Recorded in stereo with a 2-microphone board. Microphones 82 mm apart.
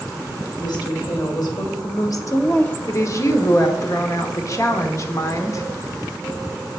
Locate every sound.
0.6 s a woman speaking: 70° left (ahead or behind), 3 m; by 2.8 s 10° left (ahead or behind), 0.7 m
2.9 s a woman speaking: 45° left (ahead or behind), 1.2 m